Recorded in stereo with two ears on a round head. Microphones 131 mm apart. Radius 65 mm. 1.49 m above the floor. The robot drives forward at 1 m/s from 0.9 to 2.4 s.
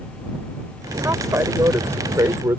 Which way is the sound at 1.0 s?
15° right (ahead or behind).